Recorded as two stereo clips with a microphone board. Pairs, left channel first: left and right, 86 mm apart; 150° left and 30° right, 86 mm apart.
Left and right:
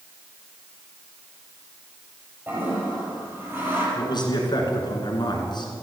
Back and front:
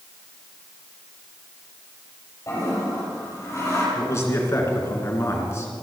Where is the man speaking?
100° left, 2.5 m.